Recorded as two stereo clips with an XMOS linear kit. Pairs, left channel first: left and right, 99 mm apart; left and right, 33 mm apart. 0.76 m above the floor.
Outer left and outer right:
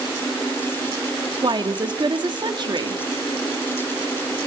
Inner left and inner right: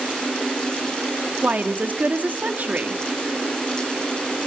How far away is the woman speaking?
About 1.8 m.